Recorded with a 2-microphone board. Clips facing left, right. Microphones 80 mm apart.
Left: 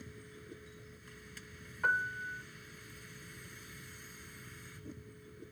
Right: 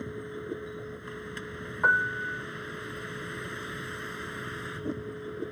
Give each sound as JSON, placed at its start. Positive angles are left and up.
{"t": 0.0, "sound": "a vehicle", "side_deg": -65}
{"t": 1.8, "sound": "a piano", "side_deg": -50}